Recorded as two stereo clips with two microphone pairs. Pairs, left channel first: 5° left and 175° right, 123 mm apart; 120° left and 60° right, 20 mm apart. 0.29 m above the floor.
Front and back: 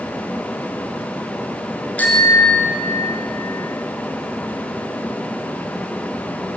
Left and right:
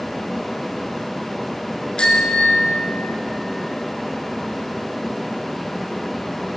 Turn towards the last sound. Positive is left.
turn(degrees=70)